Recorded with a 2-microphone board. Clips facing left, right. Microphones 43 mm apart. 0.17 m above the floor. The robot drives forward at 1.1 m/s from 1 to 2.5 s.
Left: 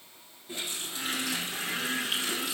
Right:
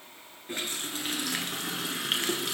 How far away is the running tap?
About 2 m.